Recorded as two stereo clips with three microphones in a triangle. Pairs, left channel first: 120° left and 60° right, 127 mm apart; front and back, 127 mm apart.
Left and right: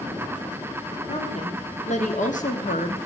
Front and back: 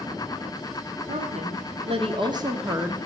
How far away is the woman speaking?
About 2.5 m.